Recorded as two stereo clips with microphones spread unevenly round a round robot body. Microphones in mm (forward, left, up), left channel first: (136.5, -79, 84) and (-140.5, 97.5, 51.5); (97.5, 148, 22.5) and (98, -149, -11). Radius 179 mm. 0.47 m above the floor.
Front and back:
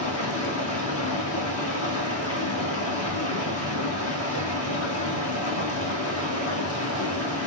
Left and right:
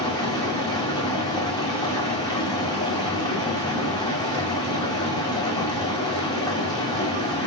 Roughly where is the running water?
Ahead.